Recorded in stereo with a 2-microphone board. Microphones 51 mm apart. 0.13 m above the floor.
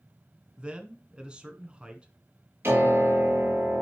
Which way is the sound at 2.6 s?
50° right (ahead or behind).